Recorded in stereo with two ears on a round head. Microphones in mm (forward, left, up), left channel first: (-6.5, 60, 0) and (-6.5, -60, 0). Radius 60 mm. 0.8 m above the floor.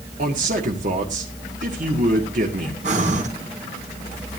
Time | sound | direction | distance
0.2 | a man speaking | 65° right (ahead or behind) | 2 m
2.8 | breathing | 60° right (ahead or behind) | 3 m